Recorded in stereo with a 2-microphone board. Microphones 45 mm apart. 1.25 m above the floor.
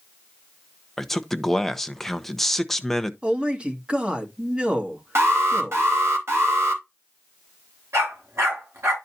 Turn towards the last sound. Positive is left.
turn(degrees=-70)  # may be behind; listen again after turning